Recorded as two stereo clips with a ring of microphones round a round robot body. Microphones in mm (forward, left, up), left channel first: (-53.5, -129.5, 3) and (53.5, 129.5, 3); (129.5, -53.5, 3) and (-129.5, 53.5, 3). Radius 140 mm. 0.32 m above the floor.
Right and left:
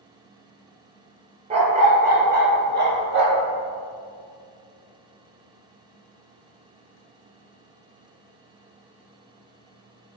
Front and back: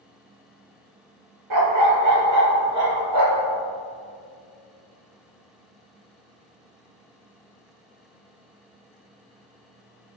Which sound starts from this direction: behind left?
A dog barking, at 1.5 s.